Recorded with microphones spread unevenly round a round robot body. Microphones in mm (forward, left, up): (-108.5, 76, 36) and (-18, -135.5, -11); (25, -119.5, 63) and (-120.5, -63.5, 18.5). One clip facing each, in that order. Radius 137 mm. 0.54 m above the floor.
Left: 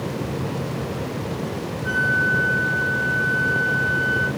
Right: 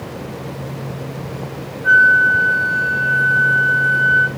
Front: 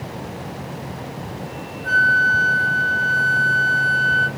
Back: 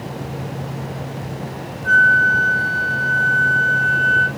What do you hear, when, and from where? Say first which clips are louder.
1.8 s a flute: even, back 3 dB; 20° left, 0.8 m